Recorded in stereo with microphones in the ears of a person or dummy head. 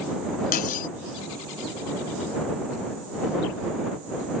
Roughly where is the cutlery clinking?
Left.